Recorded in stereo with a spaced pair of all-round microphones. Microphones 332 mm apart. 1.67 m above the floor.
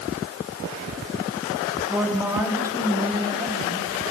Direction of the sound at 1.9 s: 5° right (ahead or behind).